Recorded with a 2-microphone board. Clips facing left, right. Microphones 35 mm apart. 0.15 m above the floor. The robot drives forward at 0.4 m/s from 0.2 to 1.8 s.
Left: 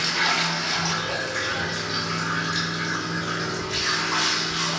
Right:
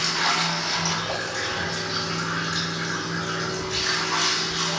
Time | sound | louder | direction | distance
0.0 | running water | left 1 dB | 10° left (ahead or behind) | 1.3 m